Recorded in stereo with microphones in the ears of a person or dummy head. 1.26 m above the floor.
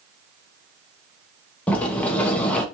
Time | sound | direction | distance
1.7 | a sliding door | 10° left (ahead or behind) | 0.6 m